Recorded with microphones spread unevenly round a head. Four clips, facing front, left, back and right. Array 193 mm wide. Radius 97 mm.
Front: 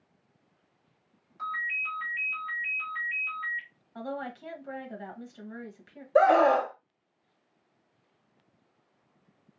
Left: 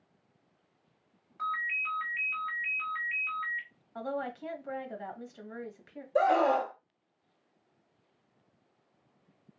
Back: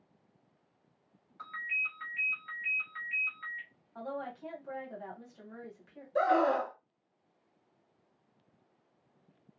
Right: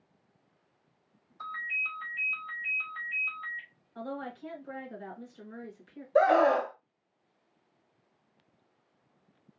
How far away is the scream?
About 1.2 m.